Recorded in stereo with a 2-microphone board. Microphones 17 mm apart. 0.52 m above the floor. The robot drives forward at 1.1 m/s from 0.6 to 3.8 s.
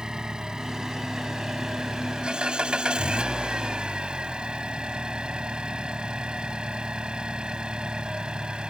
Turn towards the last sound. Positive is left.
turn(degrees=-65)  # may be behind; listen again after turning